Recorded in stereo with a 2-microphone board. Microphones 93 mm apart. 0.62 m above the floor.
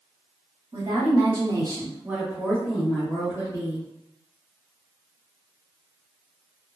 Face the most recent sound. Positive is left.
turn(degrees=30)  # may be behind; listen again after turning